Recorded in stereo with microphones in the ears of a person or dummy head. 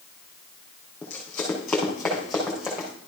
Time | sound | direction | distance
1.0 | running footsteps | 10° left (ahead or behind) | 4 m